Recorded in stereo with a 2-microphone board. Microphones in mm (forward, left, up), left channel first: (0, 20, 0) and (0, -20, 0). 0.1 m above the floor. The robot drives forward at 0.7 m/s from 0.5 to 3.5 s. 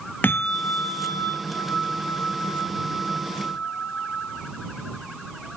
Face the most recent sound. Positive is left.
turn(degrees=15)  # may be behind; listen again after turning